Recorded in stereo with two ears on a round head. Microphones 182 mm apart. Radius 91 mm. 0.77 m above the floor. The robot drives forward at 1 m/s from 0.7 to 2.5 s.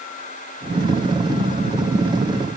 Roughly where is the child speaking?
No child speaking in this recording.